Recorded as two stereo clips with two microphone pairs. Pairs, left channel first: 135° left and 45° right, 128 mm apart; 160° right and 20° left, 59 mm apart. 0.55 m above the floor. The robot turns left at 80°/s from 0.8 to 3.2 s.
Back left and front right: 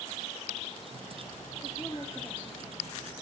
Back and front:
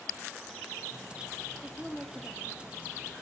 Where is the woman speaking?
135° left, 0.7 m; by 3.0 s 25° left, 0.7 m.